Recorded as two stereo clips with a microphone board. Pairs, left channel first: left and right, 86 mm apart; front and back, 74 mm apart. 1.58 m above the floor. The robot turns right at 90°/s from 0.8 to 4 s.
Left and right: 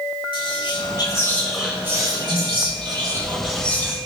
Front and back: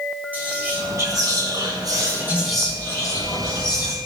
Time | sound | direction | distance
0.3 | whispering | 110° left | 4.5 m